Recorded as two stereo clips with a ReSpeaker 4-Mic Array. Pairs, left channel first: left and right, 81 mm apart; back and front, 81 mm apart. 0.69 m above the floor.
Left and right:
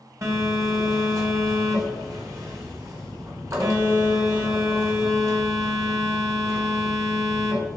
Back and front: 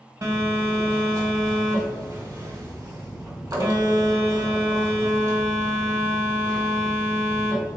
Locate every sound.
0.2 s a phone buzzing: 40° right, 1.5 m